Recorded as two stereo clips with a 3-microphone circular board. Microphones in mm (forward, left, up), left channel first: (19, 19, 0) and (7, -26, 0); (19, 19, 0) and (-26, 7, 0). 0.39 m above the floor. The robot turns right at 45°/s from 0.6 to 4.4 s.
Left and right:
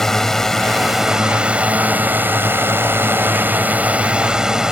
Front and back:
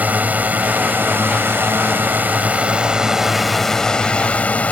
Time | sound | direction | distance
0.0 | a drone | 155° left | ?